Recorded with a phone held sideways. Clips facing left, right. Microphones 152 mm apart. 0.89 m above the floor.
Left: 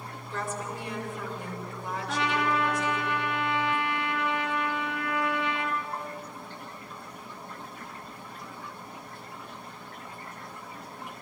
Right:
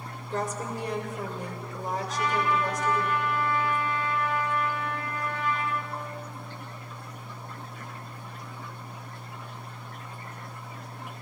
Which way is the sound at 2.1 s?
70° left (ahead or behind).